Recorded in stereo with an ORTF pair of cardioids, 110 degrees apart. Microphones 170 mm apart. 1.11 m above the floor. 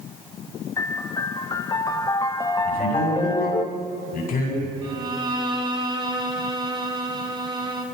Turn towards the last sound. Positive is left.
turn(degrees=-25)